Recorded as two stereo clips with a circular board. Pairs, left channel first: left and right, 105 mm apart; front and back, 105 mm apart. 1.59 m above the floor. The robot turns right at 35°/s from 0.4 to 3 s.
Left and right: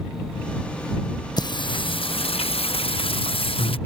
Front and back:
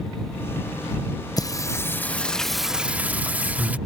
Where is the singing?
50° left; by 3.8 s 105° left.